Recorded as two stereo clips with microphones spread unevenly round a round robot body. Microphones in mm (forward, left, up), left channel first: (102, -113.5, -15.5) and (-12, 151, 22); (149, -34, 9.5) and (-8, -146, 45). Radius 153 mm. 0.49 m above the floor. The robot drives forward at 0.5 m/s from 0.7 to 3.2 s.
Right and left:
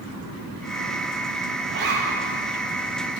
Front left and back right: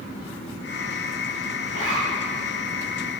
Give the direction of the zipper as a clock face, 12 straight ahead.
6 o'clock.